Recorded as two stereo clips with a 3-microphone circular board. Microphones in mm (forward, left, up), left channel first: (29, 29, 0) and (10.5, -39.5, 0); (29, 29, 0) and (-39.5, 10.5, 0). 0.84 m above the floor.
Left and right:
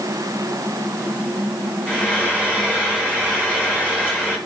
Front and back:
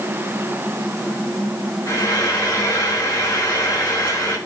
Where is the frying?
35° right, 6 m.